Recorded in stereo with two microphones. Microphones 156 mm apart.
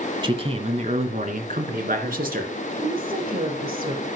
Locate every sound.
0.2 s a man speaking: 30° right (ahead or behind), 1.2 m; by 2.5 s 70° right (ahead or behind), 3 m
2.8 s a woman speaking: 60° right (ahead or behind), 5.5 m